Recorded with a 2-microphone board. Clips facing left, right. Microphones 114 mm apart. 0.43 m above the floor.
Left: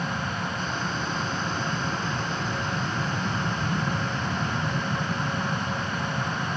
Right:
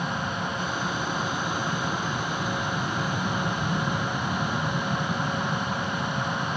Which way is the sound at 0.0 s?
10° right (ahead or behind).